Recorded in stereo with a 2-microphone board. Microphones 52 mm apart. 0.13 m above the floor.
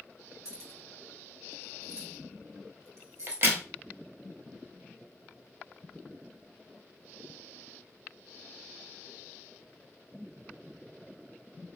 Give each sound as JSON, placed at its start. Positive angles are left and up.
{"t": 0.5, "sound": "keys jangling", "side_deg": -60, "distance_m": 1.4}
{"t": 3.3, "sound": "a crack", "side_deg": -40, "distance_m": 0.9}